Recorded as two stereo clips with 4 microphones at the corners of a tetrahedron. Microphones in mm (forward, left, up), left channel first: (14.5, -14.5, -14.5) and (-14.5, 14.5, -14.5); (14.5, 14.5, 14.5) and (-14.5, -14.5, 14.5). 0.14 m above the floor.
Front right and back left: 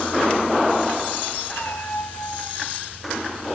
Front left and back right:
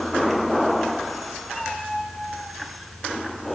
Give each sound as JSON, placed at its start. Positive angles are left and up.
{"t": 1.5, "sound": "a cat meowing", "azimuth_deg": -40, "distance_m": 5.5}